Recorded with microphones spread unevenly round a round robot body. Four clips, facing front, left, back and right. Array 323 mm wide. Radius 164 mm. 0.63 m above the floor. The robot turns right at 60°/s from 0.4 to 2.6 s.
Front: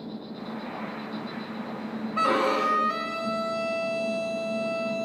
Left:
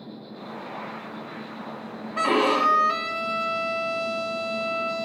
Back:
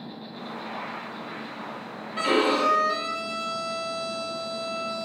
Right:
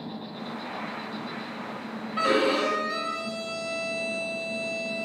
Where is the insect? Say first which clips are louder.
Right 3 dB, front 2 dB; 110° right, 8 m; by 5.0 s 25° left, 8 m.